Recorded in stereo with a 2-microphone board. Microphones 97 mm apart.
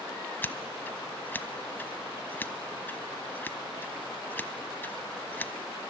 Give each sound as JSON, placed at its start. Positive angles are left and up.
{"t": 0.4, "sound": "scissors", "side_deg": 20, "distance_m": 0.8}